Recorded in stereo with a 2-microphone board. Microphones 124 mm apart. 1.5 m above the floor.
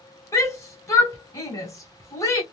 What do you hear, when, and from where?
0.3 s a shout: 25° left (ahead or behind), 1.2 m